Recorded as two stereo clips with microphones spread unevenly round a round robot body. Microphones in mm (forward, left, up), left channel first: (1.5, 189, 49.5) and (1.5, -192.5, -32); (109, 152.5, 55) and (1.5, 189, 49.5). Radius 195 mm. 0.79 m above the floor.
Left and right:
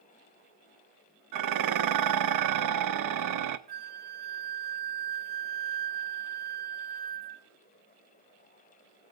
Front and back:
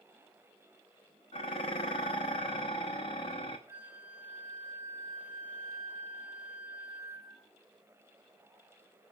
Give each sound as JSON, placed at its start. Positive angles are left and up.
{"t": 1.3, "sound": "dishes clattering", "azimuth_deg": -65, "distance_m": 0.7}
{"t": 3.7, "sound": "a flute", "azimuth_deg": -40, "distance_m": 0.8}